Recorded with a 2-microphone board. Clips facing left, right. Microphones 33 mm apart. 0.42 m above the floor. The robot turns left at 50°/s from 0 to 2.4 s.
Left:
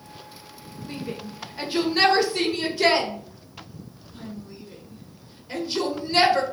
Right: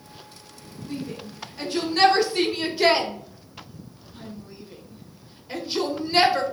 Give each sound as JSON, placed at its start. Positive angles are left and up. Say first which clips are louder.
{"t": 0.9, "sound": "a shout", "louder": "even", "side_deg": 40, "distance_m": 1.1}